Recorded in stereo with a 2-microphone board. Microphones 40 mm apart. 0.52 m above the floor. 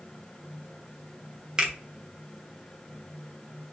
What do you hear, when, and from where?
1.6 s a finger snap: 20° right (ahead or behind), 0.6 m